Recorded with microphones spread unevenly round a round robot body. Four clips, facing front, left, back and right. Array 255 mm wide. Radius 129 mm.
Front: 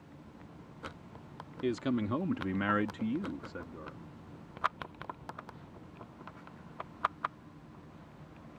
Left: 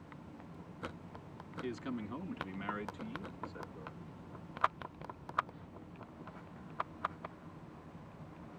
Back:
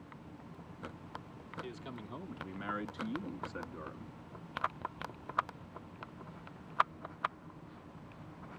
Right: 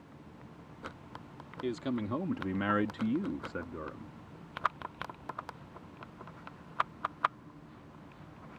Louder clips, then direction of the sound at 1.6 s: Right 7 dB, front 18 dB; 15° right.